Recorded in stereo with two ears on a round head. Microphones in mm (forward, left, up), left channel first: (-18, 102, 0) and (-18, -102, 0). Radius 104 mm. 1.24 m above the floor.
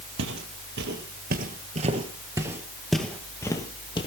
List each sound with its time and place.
0.2 s footsteps: 55° right (ahead or behind), 2 m; by 4.1 s 25° left (ahead or behind), 2 m